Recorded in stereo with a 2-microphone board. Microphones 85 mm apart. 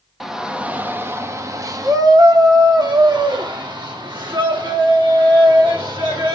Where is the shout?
5° right (ahead or behind), 0.9 m; by 6.3 s 80° right, 3.5 m.